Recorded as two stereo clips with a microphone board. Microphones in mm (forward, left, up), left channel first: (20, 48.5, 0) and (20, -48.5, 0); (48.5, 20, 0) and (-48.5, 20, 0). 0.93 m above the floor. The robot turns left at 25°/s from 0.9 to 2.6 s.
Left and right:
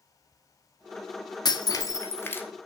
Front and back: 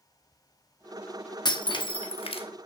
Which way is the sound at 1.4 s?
45° left.